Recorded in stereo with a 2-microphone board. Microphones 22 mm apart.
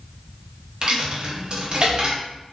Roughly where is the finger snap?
No finger snap in this recording.